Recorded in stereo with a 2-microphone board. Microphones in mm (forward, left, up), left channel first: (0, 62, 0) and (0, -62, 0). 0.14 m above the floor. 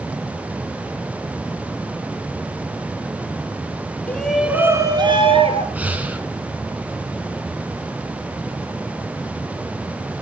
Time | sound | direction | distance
4.1 | a shout | 15° left (ahead or behind) | 1.3 m
5.8 | breathing | 15° right (ahead or behind) | 1.5 m